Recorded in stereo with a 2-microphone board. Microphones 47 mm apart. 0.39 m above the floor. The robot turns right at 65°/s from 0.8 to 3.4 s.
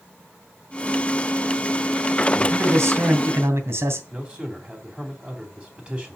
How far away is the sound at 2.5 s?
About 2 m.